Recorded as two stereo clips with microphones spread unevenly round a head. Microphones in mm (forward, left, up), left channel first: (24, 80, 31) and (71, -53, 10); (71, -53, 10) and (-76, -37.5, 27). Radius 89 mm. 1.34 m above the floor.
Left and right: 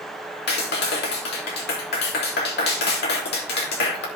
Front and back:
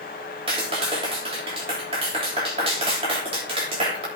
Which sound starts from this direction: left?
A clap, at 0.5 s.